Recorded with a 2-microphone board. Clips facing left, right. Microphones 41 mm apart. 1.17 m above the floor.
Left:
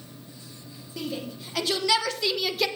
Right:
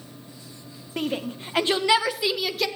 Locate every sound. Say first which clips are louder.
1.0 s a shout: right 5 dB; 50° right (ahead or behind), 1.2 m; by 2.7 s centre (ahead or behind), 1.0 m